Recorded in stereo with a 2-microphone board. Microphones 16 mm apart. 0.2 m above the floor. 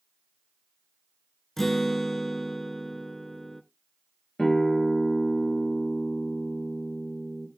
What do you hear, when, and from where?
1.6 s a guitar: 15° left (ahead or behind), 0.7 m
4.4 s a guitar: 50° left (ahead or behind), 3.5 m